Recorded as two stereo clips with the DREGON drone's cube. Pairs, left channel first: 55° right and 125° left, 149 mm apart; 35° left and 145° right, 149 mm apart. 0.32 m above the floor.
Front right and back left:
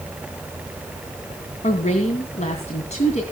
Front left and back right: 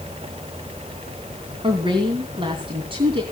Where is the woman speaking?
90° right, 2.5 m.